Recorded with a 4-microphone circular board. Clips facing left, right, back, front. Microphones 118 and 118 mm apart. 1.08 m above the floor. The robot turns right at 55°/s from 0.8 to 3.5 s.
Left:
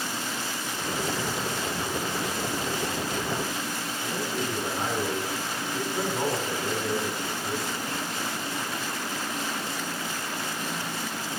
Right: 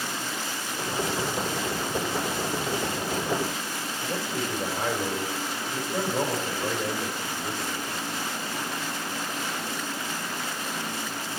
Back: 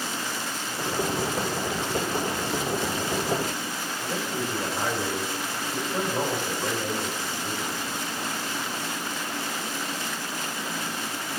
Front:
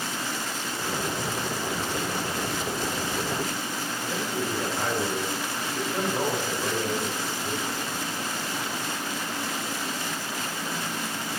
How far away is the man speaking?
About 4 m.